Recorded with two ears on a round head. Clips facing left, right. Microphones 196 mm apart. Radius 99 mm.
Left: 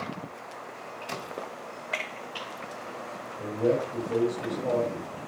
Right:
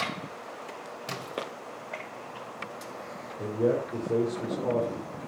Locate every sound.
1.1 s a splash: 70° right (ahead or behind), 3 m
3.4 s a man speaking: 80° right, 3.5 m